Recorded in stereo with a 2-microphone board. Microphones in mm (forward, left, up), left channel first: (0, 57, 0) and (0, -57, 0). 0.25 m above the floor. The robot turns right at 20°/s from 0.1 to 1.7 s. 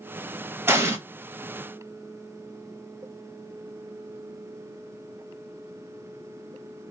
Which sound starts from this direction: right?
An explosion, at 0.7 s.